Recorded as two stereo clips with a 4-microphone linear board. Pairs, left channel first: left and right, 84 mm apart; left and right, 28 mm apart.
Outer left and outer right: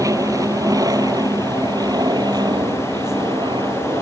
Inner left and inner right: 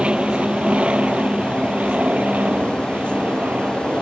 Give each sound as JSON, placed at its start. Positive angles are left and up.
{"t": 0.0, "sound": "an aircraft", "side_deg": -45}